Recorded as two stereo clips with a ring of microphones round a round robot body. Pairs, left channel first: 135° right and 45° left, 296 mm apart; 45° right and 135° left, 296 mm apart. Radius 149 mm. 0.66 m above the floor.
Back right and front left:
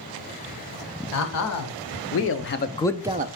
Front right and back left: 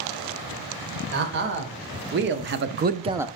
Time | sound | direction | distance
1.1 | a man speaking | 170° right | 2.5 m